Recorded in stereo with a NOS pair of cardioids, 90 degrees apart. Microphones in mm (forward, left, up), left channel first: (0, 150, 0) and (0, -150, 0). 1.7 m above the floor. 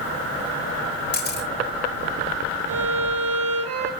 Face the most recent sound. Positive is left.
turn(degrees=-55)